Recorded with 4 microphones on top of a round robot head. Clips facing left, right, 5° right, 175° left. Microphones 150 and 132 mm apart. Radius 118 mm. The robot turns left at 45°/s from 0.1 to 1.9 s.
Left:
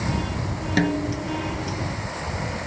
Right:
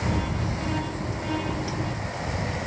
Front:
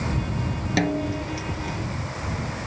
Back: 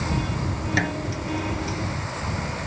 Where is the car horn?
I don't hear a car horn.